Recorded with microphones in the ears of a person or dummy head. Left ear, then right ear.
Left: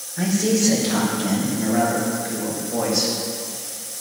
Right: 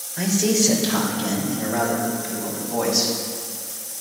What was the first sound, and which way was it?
A man speaking, 85° right.